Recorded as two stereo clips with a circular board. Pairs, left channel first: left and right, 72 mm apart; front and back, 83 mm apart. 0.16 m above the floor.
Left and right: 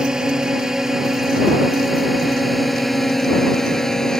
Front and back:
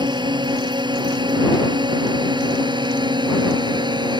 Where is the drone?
170° right; by 4.2 s 170° left.